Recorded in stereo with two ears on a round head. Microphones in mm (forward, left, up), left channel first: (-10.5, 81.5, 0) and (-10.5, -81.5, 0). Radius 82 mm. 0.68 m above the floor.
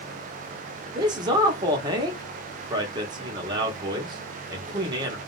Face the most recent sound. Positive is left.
turn(degrees=-20)  # may be behind; listen again after turning